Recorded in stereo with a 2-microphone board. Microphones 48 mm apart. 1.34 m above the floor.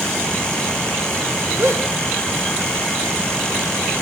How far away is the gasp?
About 1.9 m.